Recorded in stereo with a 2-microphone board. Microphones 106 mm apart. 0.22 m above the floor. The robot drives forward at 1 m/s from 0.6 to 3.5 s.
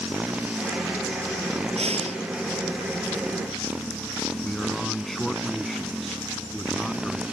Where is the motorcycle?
10° right (ahead or behind).